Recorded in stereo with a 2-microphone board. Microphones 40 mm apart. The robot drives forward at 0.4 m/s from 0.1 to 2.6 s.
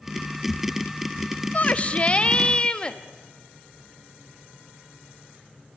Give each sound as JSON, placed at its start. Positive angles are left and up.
{"t": 1.5, "sound": "a shout", "side_deg": 40, "distance_m": 0.8}